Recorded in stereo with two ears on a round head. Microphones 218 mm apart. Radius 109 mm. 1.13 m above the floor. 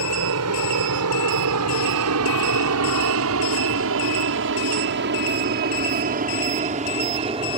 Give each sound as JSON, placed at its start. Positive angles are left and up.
{"t": 0.0, "sound": "an aircraft", "side_deg": -70}